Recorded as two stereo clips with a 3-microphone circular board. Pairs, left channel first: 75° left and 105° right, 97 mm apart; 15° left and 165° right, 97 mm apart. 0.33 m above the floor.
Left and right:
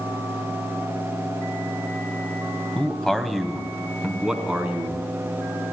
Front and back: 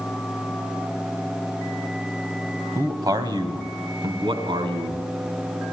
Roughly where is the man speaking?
Behind left.